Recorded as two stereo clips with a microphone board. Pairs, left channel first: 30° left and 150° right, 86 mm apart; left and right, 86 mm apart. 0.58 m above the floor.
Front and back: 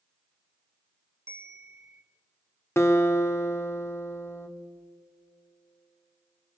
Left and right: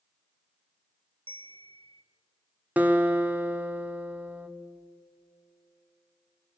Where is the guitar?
25° right, 1.5 m.